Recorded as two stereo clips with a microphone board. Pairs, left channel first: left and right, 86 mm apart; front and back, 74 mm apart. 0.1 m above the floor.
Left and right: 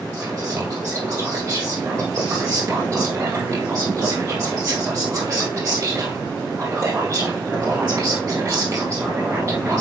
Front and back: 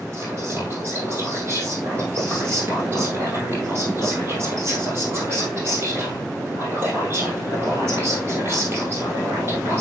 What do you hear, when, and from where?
0.1 s whispering: 135° right, 3 m